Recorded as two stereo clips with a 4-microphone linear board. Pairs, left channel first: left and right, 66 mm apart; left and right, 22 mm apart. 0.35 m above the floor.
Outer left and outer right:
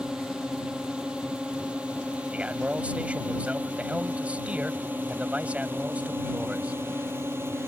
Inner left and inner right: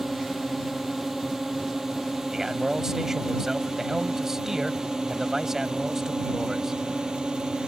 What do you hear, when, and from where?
0.0 s a drone: 10° right (ahead or behind); by 7.7 s 40° right (ahead or behind)
2.3 s a man speaking: 20° right (ahead or behind)